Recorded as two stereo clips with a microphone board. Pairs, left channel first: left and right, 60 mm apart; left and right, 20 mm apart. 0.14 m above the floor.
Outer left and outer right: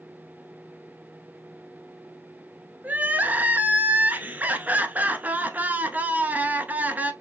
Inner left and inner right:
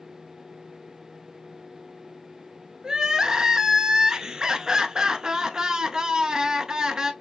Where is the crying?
30° right (ahead or behind), 0.7 m.